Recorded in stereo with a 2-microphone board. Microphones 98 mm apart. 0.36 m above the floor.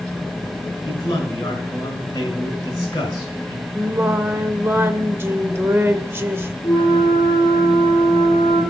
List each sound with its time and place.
0.8 s a man speaking: 35° left (ahead or behind), 5 m
3.8 s singing: 25° right (ahead or behind), 0.7 m
6.6 s a flute: 50° left (ahead or behind), 4.5 m